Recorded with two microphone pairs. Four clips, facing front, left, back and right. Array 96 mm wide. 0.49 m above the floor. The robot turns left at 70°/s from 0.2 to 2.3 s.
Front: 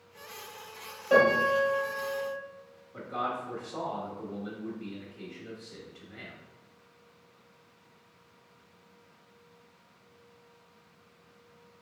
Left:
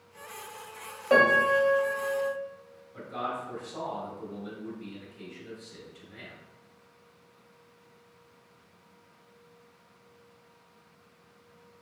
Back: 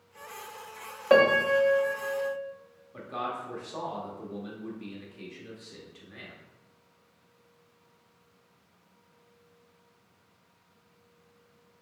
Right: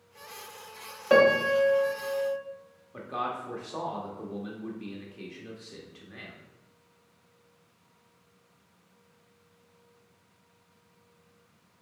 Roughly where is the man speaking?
Right.